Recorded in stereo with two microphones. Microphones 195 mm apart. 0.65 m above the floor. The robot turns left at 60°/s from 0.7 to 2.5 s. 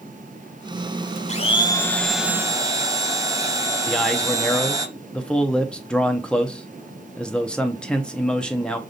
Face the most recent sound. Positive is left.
turn(degrees=5)  # may be behind; listen again after turning